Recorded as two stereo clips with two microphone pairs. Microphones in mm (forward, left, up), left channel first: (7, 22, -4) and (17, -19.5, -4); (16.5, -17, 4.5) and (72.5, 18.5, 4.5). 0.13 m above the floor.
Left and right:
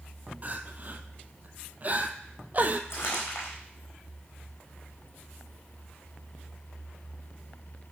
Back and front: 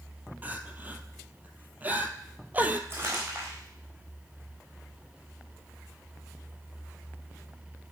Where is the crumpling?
85° left, 4 m.